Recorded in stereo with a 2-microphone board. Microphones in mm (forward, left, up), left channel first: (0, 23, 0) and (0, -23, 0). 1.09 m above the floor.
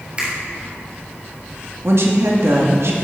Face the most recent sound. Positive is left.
turn(degrees=-70)  # may be behind; listen again after turning